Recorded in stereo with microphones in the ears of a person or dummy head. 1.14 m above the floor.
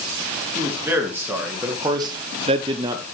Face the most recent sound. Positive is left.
turn(degrees=-20)  # may be behind; listen again after turning